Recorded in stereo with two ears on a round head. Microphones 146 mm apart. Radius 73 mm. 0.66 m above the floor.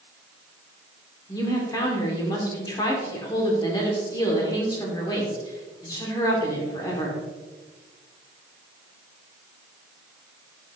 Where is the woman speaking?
25° left (ahead or behind), 1.6 m.